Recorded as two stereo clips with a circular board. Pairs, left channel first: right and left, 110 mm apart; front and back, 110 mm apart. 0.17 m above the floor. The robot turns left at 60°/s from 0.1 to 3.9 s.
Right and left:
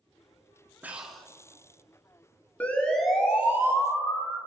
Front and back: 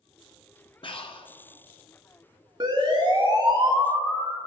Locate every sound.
0.8 s breathing: 20° left, 1.3 m; by 1.3 s 10° right, 1.3 m
2.6 s a siren: 160° right, 3 m; by 4.4 s 140° left, 4 m